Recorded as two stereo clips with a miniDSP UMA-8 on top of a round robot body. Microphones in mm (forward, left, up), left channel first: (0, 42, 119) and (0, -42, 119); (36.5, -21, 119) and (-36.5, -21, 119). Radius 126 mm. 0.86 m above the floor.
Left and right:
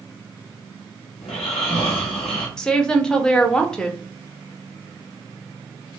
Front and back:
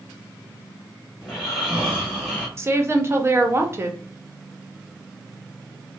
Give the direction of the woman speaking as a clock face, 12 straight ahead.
6 o'clock.